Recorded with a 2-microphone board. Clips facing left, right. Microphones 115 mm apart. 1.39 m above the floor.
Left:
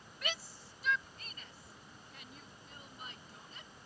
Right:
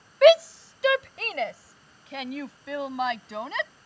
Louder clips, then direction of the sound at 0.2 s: Right 29 dB; 85° right.